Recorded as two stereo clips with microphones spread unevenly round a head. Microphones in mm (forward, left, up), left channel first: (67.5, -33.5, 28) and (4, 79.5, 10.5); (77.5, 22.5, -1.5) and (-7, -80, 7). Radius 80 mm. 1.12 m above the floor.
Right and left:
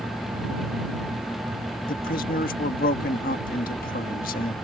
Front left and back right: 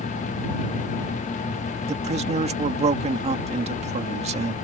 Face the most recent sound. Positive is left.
turn(degrees=-90)